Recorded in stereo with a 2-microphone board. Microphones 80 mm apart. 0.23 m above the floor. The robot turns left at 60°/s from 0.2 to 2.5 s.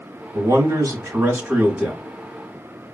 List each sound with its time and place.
0.3 s a man speaking: 75° right, 1.1 m; by 2.0 s 175° right, 1.1 m